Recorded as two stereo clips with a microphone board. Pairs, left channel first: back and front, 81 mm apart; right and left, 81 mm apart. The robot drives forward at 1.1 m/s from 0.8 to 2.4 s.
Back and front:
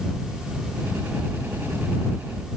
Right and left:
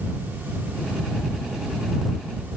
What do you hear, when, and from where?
Only background noise.